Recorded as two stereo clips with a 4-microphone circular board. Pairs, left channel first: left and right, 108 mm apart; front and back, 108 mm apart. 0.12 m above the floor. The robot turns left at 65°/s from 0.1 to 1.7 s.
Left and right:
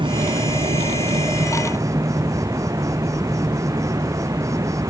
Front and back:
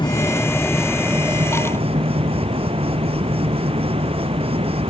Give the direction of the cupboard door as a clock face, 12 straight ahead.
No cupboard door in this recording.